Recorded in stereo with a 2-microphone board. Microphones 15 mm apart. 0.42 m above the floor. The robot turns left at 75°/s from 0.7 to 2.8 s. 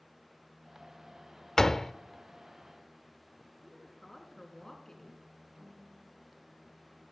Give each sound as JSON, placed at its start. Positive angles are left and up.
{"t": 1.6, "sound": "a door slam", "side_deg": 35, "distance_m": 0.6}
{"t": 3.6, "sound": "a woman speaking", "side_deg": 35, "distance_m": 4.5}
{"t": 5.6, "sound": "a snare drum", "side_deg": -50, "distance_m": 8.0}